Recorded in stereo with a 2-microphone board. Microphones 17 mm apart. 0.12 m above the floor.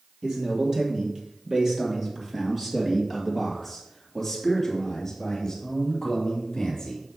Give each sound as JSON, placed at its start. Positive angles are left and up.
{"t": 0.2, "sound": "a man speaking", "side_deg": -50, "distance_m": 3.5}